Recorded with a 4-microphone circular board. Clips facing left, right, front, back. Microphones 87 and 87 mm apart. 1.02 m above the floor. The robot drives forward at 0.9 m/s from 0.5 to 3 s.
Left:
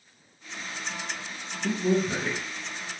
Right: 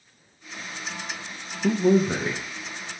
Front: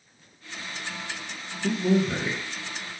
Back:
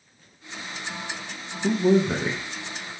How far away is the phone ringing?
No phone ringing in this recording.